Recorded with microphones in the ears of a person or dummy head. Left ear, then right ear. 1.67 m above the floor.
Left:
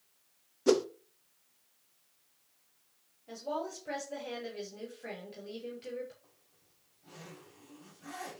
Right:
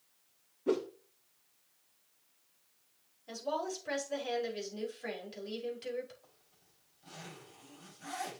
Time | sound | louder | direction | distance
0.7 | a whoosh | left 6 dB | 80° left | 0.9 m
3.3 | a woman speaking | right 1 dB | 30° right (ahead or behind) | 5 m
6.2 | a zipper | right 2 dB | 45° right (ahead or behind) | 5.5 m